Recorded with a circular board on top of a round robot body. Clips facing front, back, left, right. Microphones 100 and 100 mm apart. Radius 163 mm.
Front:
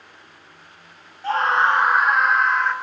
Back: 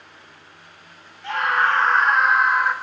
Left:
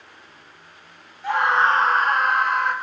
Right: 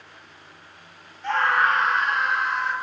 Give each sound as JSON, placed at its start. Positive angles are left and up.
{"t": 1.2, "sound": "a scream", "azimuth_deg": 10, "distance_m": 0.8}